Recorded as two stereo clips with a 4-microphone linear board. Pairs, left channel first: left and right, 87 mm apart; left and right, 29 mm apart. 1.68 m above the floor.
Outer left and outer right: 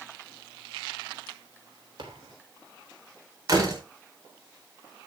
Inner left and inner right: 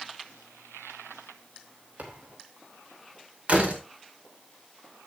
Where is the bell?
No bell in this recording.